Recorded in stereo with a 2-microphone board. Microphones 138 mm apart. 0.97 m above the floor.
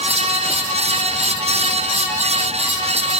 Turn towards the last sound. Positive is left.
No sound to turn to.